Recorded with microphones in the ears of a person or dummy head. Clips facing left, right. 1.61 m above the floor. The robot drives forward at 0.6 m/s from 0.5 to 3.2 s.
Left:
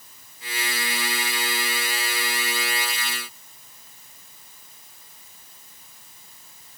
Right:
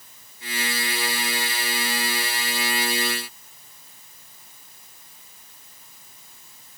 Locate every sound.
Only background noise.